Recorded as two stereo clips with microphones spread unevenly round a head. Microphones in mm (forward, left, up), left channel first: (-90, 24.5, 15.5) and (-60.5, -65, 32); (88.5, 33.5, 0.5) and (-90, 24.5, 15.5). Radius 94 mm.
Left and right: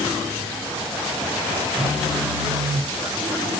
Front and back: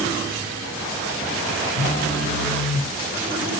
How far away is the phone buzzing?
About 2 m.